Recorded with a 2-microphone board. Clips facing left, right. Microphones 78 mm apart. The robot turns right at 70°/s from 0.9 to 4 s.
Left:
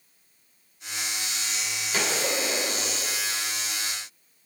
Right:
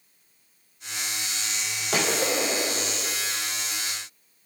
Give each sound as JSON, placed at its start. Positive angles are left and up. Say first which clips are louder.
{"t": 1.9, "sound": "a gunshot", "louder": "right 3 dB", "azimuth_deg": -85, "distance_m": 4.5}